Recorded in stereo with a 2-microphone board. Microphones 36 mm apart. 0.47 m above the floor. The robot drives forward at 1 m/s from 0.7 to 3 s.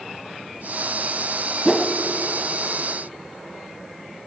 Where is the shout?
I don't hear a shout.